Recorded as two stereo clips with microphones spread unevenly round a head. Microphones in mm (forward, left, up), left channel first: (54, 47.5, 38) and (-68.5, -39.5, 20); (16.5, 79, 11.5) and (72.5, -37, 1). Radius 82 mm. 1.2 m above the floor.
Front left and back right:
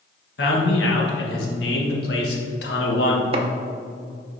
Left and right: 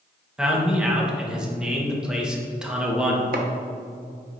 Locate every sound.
0.4 s a man speaking: 20° left, 1.3 m
3.3 s chopping: 90° right, 0.7 m